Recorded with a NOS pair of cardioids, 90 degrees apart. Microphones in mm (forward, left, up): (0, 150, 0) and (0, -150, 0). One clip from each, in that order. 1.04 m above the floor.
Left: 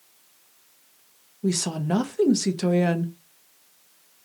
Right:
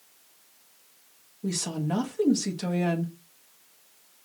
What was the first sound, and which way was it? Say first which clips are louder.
A woman speaking: left 4 dB; 20° left.